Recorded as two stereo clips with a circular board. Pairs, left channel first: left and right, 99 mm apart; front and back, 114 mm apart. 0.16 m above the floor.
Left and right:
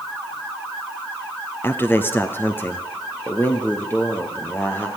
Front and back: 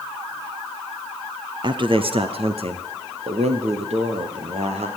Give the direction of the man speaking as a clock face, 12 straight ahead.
7 o'clock.